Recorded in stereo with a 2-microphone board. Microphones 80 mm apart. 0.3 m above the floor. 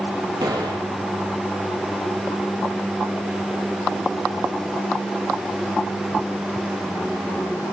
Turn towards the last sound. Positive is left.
turn(degrees=-70)  # may be behind; listen again after turning